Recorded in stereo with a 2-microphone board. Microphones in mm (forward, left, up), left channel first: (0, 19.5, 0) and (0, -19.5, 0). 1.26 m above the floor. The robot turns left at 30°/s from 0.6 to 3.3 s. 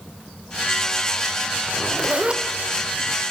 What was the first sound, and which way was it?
A zipper, 15° right (ahead or behind).